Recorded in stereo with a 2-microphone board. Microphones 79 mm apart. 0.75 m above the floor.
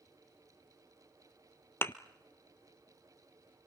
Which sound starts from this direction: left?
A thud, at 1.8 s.